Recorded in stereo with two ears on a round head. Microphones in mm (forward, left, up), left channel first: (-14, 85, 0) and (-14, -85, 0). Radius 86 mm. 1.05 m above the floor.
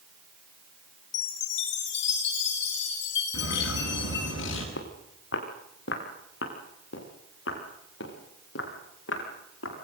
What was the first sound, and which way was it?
A chime, 70° left (ahead or behind).